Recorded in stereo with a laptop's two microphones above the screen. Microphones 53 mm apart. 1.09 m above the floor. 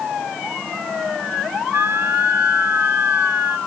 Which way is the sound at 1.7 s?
60° right (ahead or behind).